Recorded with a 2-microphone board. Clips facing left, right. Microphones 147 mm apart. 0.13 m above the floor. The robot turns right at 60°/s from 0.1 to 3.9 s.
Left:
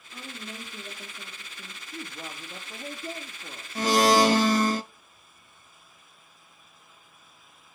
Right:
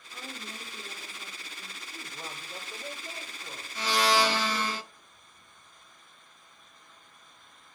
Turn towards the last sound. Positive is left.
turn(degrees=45)  # may be behind; listen again after turning